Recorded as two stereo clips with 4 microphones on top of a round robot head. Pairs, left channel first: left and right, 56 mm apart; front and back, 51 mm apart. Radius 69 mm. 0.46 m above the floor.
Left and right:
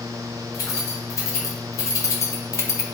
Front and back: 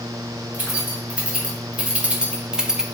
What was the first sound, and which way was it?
Keys jangling, 120° left.